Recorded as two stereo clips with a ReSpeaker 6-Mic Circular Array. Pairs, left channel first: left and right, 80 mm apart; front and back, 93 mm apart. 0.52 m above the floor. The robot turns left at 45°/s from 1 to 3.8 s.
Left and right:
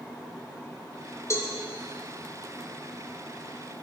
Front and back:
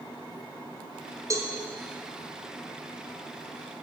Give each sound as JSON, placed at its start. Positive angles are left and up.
{"t": 1.3, "sound": "a cowbell", "azimuth_deg": 135, "distance_m": 1.6}